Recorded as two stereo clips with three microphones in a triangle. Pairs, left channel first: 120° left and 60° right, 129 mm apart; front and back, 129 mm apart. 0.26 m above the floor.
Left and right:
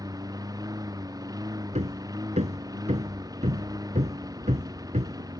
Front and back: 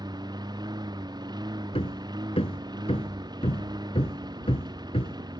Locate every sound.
0.0 s a lawn mower: 120° right
1.7 s hammering: 40° right